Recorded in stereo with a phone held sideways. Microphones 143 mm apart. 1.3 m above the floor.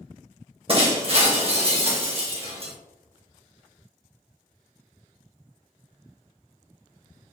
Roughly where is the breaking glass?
Right.